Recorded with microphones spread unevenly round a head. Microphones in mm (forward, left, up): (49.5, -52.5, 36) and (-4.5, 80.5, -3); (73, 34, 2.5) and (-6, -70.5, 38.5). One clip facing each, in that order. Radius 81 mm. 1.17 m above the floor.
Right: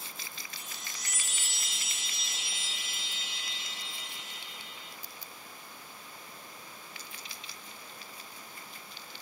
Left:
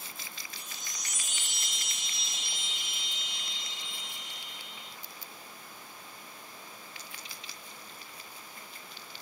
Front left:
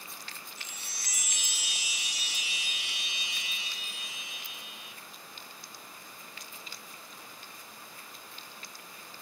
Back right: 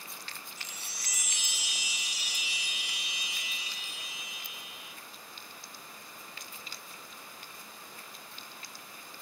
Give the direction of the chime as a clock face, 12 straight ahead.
12 o'clock.